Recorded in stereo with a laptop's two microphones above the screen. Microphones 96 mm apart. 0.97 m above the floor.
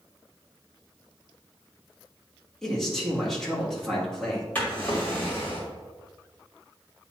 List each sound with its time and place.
2.6 s a man speaking: 5° left (ahead or behind), 1.6 m
4.5 s a drawer: 20° left (ahead or behind), 1.8 m